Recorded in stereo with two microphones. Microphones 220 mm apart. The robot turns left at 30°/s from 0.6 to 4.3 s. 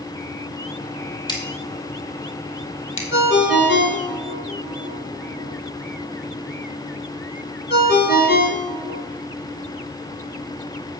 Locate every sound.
1.3 s scissors: 20° left (ahead or behind), 1.4 m; by 3.0 s 70° left (ahead or behind), 1.4 m
3.1 s a ringtone: 55° left (ahead or behind), 1.1 m; by 9.0 s 45° left (ahead or behind), 1.1 m